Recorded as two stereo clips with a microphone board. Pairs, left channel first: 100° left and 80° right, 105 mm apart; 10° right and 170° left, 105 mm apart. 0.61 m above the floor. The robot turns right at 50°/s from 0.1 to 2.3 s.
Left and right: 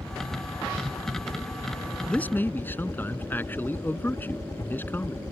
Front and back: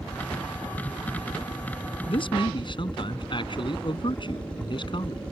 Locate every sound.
0.0 s a helicopter: 45° right; by 5.3 s 65° left
2.1 s a man speaking: 20° left; by 5.2 s 30° left